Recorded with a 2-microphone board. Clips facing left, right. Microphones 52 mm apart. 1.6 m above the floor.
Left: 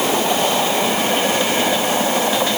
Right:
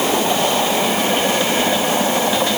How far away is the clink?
No clink in this recording.